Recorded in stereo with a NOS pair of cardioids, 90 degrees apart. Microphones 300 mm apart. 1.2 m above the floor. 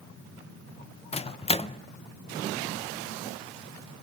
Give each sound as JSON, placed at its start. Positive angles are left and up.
{"t": 1.1, "sound": "a microwave", "azimuth_deg": 20, "distance_m": 0.5}